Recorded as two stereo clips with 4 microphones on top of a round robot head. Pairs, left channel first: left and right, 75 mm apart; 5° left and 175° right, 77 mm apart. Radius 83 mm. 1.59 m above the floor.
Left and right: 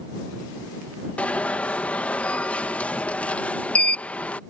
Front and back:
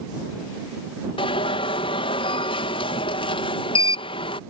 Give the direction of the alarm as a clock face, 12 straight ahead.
11 o'clock.